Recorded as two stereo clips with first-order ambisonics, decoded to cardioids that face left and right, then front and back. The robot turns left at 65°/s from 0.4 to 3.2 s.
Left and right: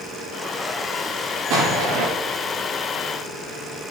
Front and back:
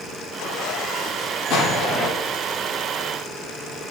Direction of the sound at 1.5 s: 45° right.